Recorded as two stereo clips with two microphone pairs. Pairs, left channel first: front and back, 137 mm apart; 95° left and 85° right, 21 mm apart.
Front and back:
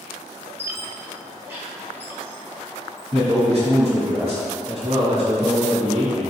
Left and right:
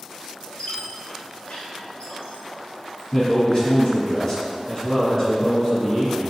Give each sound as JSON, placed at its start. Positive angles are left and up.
{"t": 0.6, "sound": "a squeak", "azimuth_deg": 110, "distance_m": 1.4}
{"t": 3.1, "sound": "a man speaking", "azimuth_deg": 160, "distance_m": 1.8}